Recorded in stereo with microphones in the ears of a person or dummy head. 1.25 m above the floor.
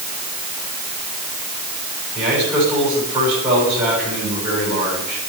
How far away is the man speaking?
About 8.5 m.